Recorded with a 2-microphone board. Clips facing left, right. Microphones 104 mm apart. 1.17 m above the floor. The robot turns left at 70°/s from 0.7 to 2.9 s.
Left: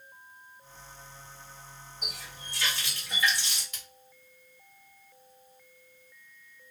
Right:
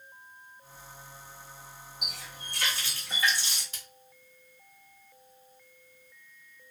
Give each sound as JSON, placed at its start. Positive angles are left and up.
{"t": 2.0, "sound": "a running tap", "azimuth_deg": -85, "distance_m": 1.0}
{"t": 3.7, "sound": "a splash", "side_deg": -35, "distance_m": 1.3}